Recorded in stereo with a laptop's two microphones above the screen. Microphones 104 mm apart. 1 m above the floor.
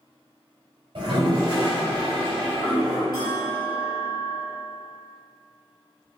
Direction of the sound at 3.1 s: 45° right (ahead or behind).